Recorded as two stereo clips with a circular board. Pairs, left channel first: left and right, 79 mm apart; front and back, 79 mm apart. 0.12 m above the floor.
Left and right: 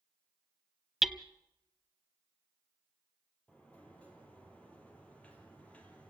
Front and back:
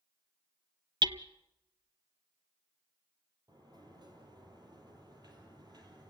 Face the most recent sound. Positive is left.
turn(degrees=165)